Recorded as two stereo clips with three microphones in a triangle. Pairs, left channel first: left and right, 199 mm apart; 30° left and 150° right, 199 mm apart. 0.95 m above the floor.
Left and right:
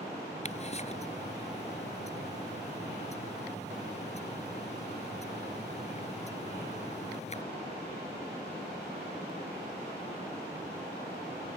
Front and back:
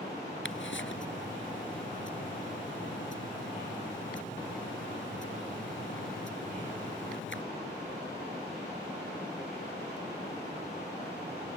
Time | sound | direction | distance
0.5 | ticking | 35° left | ?